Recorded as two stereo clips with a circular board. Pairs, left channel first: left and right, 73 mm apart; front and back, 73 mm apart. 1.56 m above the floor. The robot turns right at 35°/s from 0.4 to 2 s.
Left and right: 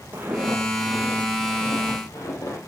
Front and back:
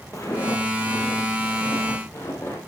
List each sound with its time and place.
0.1 s footsteps: 35° right, 3 m; by 2.6 s 55° left, 4 m